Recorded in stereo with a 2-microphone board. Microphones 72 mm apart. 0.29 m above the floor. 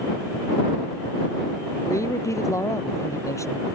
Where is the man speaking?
45° left (ahead or behind).